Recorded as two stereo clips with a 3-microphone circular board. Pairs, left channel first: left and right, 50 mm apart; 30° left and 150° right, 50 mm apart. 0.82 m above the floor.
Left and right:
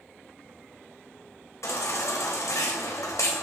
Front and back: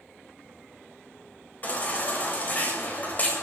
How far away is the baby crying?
About 3 m.